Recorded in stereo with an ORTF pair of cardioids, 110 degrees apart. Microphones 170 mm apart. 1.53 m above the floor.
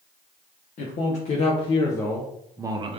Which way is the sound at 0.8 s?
55° left.